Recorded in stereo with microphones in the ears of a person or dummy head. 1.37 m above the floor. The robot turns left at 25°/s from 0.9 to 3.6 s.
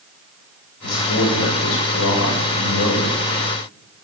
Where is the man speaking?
120° left, 7 m; by 3.2 s 60° left, 7 m.